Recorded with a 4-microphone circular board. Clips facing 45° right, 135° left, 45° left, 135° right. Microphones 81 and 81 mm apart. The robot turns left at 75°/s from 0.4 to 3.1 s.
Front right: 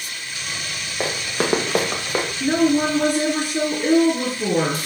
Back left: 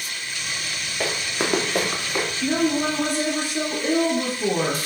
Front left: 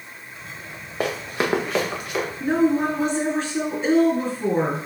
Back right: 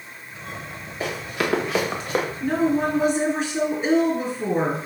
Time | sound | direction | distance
1.0 | running footsteps | 20° left | 1.8 m
2.4 | a woman speaking | 10° right | 2.5 m